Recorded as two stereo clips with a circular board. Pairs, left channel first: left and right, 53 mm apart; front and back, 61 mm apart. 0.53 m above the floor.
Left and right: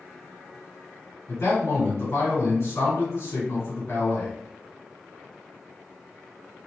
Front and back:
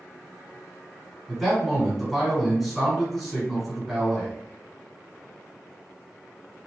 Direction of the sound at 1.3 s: 90° left.